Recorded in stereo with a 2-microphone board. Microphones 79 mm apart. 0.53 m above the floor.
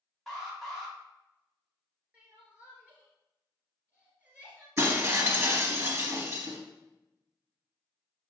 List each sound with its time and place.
0.3 s an alarm: centre (ahead or behind), 1.9 m
2.1 s crying: 20° right (ahead or behind), 2 m
4.8 s breaking glass: 30° right (ahead or behind), 1.7 m